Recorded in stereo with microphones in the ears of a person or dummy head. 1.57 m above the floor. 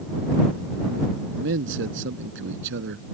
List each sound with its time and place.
1.3 s a man speaking: 65° right (ahead or behind)